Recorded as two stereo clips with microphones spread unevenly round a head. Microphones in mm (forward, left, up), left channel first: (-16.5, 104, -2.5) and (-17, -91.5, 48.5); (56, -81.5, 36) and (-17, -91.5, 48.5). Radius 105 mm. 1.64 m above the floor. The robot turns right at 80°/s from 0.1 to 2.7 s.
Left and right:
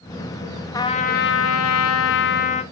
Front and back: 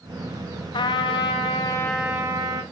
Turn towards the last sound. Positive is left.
turn(degrees=165)